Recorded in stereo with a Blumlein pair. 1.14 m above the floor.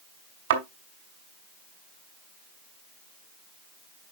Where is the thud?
55° right, 2.5 m.